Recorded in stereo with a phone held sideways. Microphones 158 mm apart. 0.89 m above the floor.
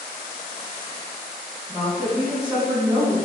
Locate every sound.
1.7 s a woman speaking: 25° right (ahead or behind), 1.6 m